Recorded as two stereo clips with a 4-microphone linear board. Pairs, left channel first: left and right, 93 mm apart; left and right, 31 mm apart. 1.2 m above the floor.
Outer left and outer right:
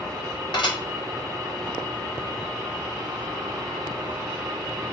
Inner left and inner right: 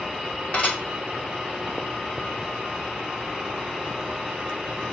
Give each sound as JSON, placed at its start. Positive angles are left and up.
{"t": 0.5, "sound": "dishes clattering", "side_deg": 55, "distance_m": 2.5}